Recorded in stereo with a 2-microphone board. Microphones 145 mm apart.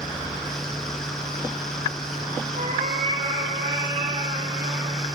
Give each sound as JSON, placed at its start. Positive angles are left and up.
{"t": 2.5, "sound": "a cat meowing", "side_deg": -70, "distance_m": 7.5}